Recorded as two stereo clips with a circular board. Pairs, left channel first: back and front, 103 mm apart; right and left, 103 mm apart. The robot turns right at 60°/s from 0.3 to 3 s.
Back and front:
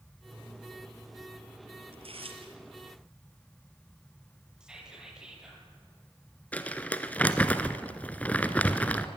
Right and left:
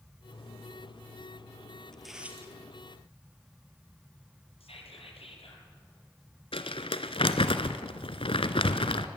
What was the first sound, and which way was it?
Tearing paper, 5° right.